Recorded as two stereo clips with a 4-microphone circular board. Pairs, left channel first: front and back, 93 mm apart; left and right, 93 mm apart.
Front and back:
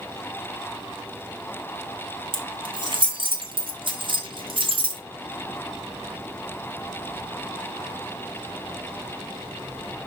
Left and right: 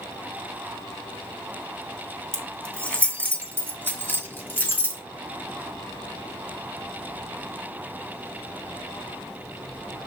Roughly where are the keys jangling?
Behind.